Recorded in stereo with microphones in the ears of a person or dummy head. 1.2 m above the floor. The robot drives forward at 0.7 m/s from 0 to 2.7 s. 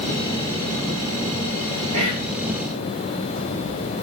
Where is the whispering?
85° right, 1.6 m.